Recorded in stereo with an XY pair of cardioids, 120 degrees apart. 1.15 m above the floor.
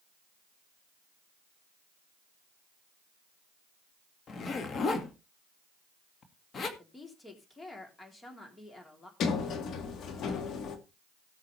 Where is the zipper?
40° left, 1.9 m.